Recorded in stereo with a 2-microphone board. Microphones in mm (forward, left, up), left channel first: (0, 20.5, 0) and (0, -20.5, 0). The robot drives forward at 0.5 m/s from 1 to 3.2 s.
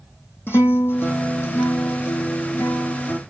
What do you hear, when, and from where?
0.5 s a guitar: 65° left (ahead or behind), 1.4 m